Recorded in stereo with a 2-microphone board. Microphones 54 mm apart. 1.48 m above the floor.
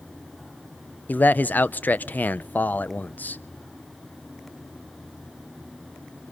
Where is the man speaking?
30° left (ahead or behind), 0.6 m.